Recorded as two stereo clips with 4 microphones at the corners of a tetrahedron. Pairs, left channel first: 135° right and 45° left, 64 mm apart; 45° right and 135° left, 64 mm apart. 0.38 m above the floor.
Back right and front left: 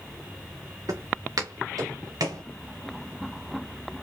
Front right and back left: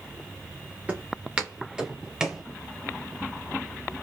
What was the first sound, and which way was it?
Footsteps, 65° left.